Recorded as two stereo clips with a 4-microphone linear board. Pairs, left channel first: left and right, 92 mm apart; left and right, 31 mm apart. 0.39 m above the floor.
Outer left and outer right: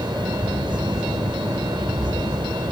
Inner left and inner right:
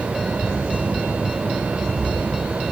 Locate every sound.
Only background noise.